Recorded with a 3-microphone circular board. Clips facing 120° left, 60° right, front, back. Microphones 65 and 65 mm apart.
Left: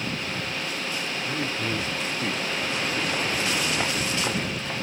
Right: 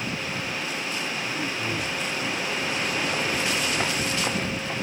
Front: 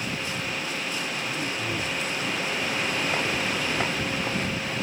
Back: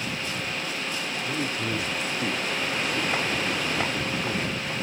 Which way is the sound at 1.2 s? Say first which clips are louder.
Left 1 dB, back 1 dB; 170° left.